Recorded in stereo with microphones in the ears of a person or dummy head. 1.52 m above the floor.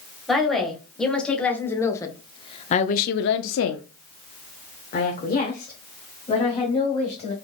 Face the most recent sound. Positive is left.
turn(degrees=30)  # may be behind; listen again after turning